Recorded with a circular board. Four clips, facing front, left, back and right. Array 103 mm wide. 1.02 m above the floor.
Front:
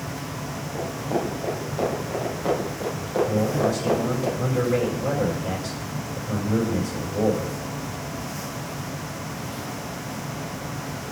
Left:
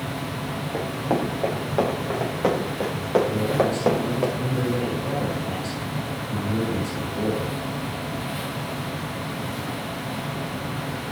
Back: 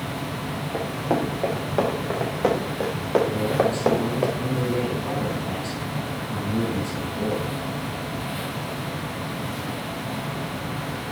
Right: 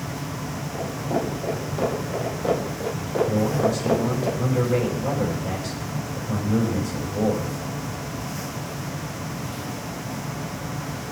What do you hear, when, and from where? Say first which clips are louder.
0.7 s running footsteps: left 2 dB, back 2 dB; 135° left, 6.5 m; by 4.3 s 145° left, 8.5 m
3.3 s a man speaking: even, even; 40° right, 6.5 m